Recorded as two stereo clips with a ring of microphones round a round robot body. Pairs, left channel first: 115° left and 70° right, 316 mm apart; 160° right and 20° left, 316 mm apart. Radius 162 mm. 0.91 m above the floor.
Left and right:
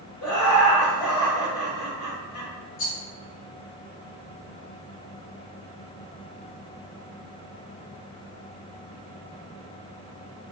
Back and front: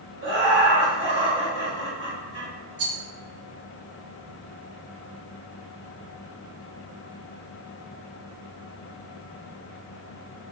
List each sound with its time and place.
0.2 s laughter: 75° left, 1.8 m
2.8 s a rattle: 60° left, 0.7 m